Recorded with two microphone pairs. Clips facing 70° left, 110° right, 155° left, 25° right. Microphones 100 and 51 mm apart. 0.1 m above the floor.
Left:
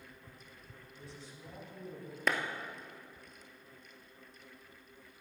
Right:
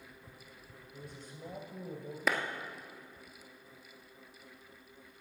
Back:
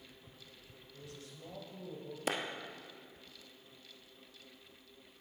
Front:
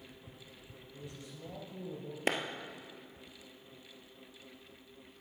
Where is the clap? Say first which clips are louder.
Right 1 dB, front 3 dB; 20° right, 1.3 m.